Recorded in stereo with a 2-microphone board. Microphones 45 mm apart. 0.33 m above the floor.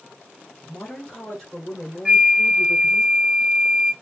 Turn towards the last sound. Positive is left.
turn(degrees=-30)  # may be behind; listen again after turning